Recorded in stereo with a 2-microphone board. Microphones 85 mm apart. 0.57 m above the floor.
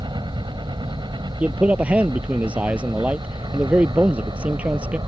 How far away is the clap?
I don't hear a clap.